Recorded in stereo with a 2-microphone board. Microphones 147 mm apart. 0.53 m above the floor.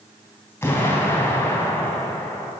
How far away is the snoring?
I don't hear snoring.